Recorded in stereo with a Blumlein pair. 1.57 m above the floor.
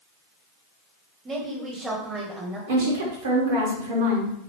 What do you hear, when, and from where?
1.2 s a woman speaking: 20° right, 1.0 m
2.7 s a woman speaking: 55° right, 1.1 m